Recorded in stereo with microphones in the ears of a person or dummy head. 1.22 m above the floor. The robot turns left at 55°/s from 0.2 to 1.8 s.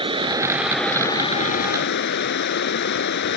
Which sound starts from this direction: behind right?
Running water, at 0.0 s.